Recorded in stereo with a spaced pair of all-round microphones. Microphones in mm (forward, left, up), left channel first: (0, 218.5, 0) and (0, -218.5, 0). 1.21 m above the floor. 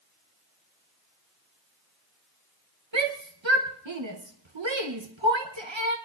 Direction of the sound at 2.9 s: 80° right.